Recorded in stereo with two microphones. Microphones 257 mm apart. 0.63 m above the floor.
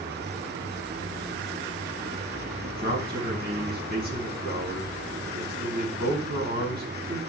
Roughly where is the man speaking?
Right.